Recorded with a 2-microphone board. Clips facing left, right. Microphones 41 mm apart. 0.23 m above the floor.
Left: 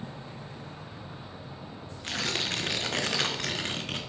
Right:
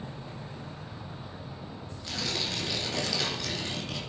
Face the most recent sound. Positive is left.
turn(degrees=50)  # may be behind; listen again after turning